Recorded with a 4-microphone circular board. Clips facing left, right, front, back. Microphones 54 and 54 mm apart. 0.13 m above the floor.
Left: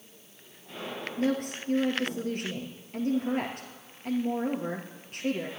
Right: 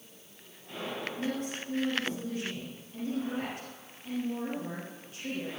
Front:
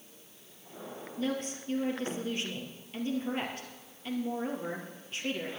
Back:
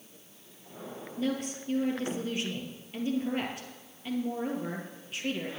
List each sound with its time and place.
1.2 s a woman speaking: 95° left, 2.5 m